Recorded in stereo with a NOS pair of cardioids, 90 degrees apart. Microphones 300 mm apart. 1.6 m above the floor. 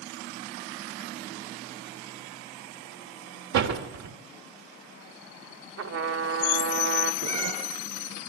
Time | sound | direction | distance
3.5 | a door slam | 70° right | 3.5 m
5.8 | a trumpet | 60° right | 3 m
7.2 | a cat meowing | 70° right | 7 m